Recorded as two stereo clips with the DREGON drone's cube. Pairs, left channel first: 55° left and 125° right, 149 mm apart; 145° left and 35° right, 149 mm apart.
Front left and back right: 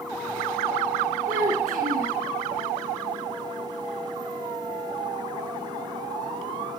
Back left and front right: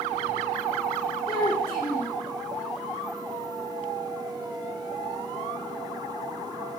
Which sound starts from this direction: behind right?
A child speaking, at 1.3 s.